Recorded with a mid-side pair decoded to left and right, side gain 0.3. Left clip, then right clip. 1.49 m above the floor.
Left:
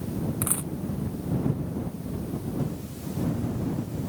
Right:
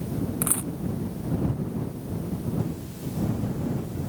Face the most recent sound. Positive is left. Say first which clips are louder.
# right 2 dB
turn(degrees=-15)